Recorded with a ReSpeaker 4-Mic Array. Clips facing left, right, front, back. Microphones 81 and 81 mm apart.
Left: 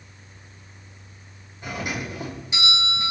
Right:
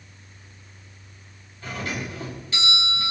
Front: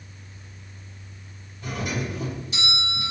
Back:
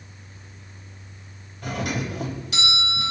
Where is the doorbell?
160° left, 4 m.